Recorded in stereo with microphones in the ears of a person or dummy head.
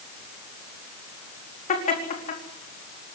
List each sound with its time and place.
1.7 s laughter: 45° left (ahead or behind), 4 m